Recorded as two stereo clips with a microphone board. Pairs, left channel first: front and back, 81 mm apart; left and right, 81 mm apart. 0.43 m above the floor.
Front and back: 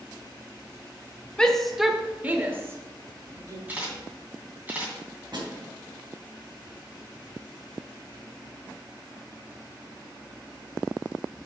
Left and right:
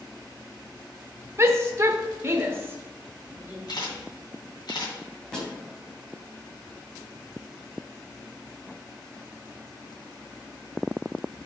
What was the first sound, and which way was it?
A shout, 70° right.